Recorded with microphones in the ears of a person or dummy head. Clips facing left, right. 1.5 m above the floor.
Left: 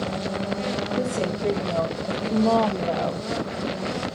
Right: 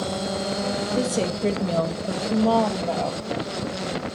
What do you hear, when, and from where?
0.9 s a woman speaking: 50° right (ahead or behind), 2 m; by 3.2 s 15° left (ahead or behind), 2 m